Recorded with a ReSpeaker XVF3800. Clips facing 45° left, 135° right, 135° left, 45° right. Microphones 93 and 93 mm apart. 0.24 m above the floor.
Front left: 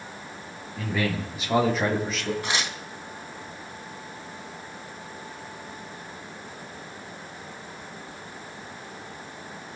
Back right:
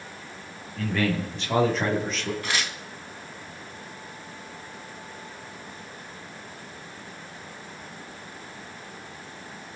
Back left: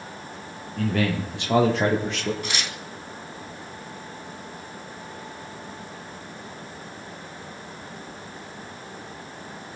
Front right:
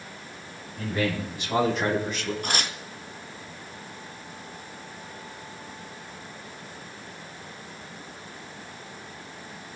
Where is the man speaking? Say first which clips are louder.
Back right 2 dB, back left 3 dB; 130° left, 7 m; by 2.3 s 135° left, 7 m.